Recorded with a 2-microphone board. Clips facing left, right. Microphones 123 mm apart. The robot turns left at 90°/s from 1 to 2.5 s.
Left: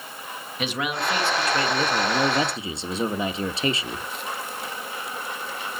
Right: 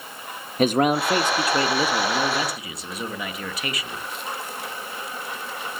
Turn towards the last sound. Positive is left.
turn(degrees=135)